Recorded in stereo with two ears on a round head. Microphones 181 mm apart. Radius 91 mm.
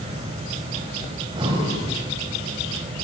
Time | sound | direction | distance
1.1 | breathing | 25° right (ahead or behind) | 5 m